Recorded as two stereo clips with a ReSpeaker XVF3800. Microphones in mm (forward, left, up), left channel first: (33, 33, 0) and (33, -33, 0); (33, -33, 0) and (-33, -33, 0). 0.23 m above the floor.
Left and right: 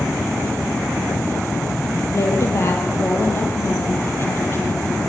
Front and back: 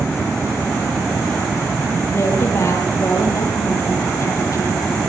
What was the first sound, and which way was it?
A woman speaking, 45° left.